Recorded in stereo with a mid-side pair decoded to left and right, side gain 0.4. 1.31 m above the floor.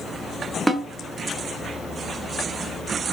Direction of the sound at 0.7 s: 15° right.